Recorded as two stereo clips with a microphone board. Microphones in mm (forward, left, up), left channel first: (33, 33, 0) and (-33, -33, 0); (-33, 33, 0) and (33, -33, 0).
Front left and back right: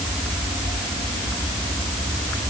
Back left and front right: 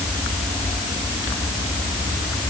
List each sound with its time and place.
Only background noise.